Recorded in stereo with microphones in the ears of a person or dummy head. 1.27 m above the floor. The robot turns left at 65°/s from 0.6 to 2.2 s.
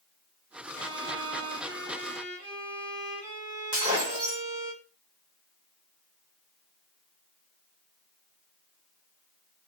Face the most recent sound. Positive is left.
turn(degrees=-35)  # may be behind; listen again after turning